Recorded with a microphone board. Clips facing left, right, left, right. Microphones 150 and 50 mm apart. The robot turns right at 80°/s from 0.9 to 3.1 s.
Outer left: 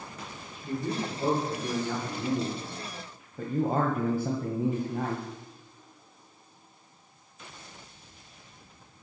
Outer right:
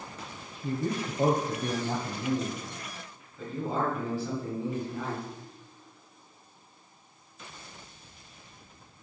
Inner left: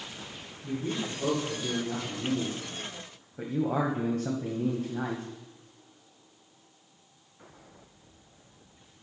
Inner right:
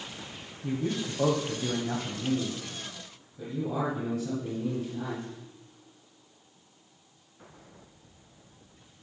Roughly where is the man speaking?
Behind right.